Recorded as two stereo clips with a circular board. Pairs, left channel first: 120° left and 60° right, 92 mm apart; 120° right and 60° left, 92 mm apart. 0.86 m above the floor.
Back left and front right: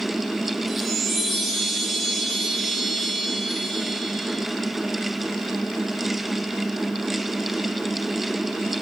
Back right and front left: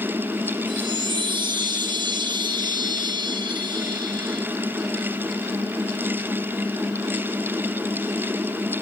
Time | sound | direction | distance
0.7 | a chime | 30° left | 2.5 m